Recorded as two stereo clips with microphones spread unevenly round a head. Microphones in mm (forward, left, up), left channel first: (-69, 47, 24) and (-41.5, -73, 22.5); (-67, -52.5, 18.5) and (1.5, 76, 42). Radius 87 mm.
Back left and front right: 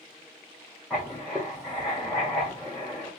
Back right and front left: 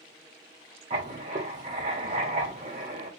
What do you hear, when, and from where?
0.9 s writing: 10° left, 2.0 m